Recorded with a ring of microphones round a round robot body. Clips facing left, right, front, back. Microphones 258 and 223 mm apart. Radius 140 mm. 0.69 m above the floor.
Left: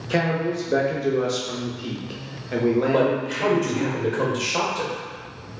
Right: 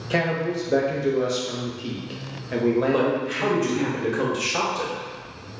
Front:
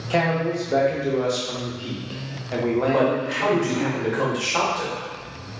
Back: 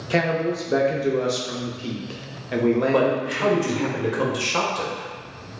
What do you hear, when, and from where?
0.1 s a man speaking: 175° left, 0.6 m
2.9 s a man speaking: 175° right, 0.9 m